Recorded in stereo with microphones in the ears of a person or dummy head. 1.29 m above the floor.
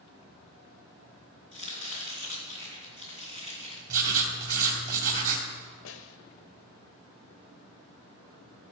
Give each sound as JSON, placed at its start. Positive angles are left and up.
{"t": 1.5, "sound": "chopping", "side_deg": -30, "distance_m": 3.0}
{"t": 3.9, "sound": "writing", "side_deg": -45, "distance_m": 2.5}
{"t": 5.8, "sound": "a snare drum", "side_deg": 65, "distance_m": 0.8}